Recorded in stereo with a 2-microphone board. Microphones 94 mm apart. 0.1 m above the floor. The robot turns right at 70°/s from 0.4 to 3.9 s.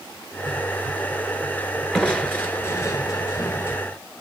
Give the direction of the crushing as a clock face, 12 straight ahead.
12 o'clock.